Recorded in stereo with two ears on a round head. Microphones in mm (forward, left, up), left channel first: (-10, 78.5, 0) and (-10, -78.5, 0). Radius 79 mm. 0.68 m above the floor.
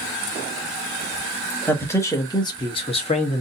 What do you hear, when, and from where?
1.7 s a man speaking: 10° left (ahead or behind), 1.1 m; by 3.4 s 40° left (ahead or behind), 1.1 m